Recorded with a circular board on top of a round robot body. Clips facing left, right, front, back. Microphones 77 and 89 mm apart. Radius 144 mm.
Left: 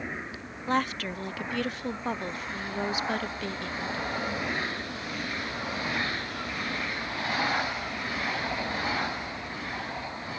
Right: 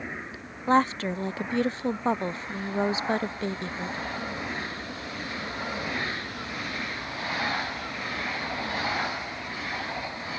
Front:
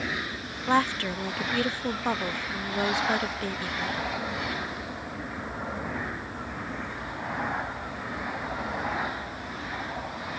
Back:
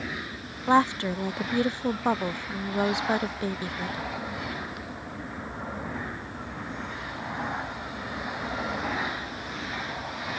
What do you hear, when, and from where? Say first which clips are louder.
0.7 s a woman speaking: right 6 dB, back 3 dB; 125° right